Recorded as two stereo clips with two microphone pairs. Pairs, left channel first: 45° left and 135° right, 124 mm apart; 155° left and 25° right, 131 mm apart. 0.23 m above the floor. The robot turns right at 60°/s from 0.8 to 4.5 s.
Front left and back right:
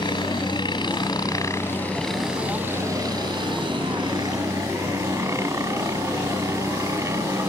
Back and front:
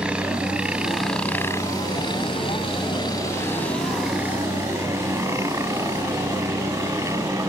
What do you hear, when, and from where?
0.0 s a helicopter: 50° left; by 7.5 s 80° right